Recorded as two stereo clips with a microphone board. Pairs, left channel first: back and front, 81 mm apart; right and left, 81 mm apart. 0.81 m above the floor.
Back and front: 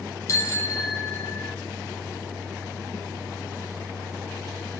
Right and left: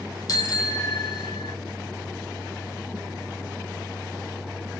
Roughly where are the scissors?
No scissors in this recording.